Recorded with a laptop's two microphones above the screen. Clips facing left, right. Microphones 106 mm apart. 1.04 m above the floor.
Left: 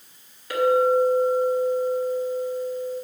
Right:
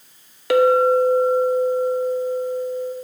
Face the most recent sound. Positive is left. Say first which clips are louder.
# right 4 dB
turn(degrees=-80)